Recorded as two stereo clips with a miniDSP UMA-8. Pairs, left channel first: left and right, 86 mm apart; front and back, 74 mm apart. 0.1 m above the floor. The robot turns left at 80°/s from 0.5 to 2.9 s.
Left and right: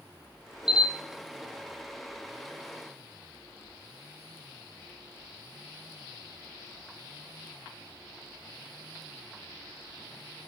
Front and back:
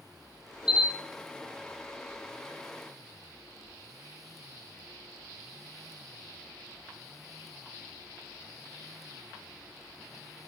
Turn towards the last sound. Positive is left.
turn(degrees=175)